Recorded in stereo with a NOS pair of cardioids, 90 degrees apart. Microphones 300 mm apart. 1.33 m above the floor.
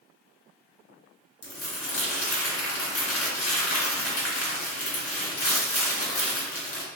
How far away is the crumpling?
About 1.5 m.